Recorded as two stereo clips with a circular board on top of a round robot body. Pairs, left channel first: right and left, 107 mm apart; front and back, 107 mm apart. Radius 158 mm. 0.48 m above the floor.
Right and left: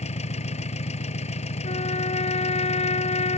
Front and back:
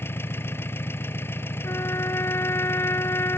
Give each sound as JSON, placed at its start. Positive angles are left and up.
{"t": 0.0, "sound": "an engine running", "azimuth_deg": -70}
{"t": 1.6, "sound": "a trumpet", "azimuth_deg": -70}